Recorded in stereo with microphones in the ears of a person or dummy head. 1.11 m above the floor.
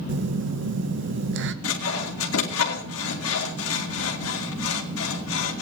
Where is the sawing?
75° left (ahead or behind), 2.0 m.